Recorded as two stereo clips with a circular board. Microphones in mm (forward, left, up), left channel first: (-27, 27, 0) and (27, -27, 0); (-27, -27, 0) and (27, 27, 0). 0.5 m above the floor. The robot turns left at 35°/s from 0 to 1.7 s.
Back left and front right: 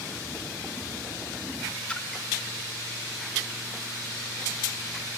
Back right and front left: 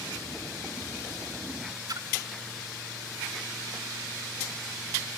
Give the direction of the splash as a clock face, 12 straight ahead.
10 o'clock.